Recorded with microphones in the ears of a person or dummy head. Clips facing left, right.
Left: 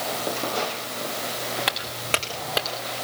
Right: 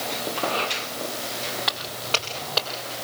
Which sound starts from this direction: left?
Footsteps, at 1.7 s.